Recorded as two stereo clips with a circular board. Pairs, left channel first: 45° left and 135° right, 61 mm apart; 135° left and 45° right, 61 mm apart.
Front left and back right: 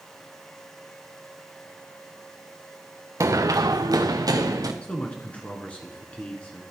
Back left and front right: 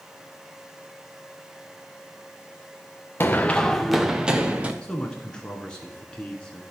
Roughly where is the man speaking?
Left.